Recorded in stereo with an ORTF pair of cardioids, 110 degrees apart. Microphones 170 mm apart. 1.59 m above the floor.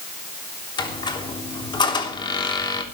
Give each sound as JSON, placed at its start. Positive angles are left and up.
{"t": 0.8, "sound": "a squeak", "azimuth_deg": 25, "distance_m": 3.0}